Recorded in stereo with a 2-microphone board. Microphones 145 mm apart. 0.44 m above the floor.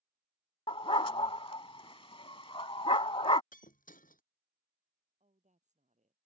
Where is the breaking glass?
85° left.